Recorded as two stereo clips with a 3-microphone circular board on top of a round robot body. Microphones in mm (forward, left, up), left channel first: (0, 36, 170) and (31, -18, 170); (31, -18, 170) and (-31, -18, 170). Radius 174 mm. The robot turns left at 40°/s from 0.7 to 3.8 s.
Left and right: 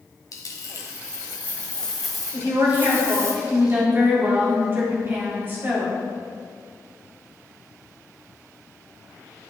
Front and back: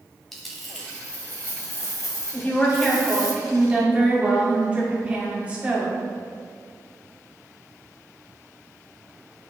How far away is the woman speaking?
About 2.0 m.